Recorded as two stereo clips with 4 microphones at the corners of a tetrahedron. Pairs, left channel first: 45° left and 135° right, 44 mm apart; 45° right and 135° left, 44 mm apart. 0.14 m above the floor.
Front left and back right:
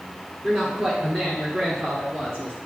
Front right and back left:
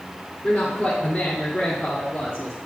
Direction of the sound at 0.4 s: 95° right.